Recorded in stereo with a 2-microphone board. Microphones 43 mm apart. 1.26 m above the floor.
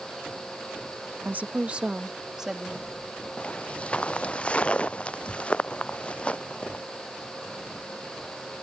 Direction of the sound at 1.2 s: 45° right (ahead or behind).